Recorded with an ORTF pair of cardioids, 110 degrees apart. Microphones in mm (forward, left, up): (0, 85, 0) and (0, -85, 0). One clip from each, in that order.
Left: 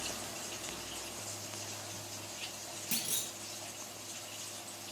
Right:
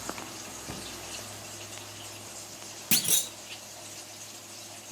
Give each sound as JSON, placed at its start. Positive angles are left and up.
{"t": 0.7, "sound": "a cupboard door", "azimuth_deg": -50, "distance_m": 0.6}
{"t": 2.9, "sound": "a clunk", "azimuth_deg": -50, "distance_m": 0.6}